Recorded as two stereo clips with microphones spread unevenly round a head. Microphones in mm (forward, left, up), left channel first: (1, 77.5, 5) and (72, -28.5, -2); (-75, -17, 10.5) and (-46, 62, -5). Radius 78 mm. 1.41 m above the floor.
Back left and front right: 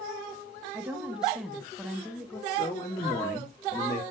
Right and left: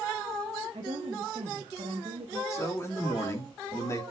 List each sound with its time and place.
0.7 s a woman speaking: 20° left, 1.1 m; by 2.4 s 40° left, 1.8 m
2.5 s a man speaking: 165° right, 3 m